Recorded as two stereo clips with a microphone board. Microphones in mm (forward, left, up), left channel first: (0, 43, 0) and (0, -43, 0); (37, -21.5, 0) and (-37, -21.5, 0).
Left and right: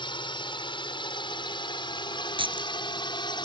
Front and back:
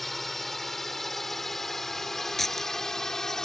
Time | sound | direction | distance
0.0 | a drone | 90° left | ?
2.4 | keys jangling | 85° right | ?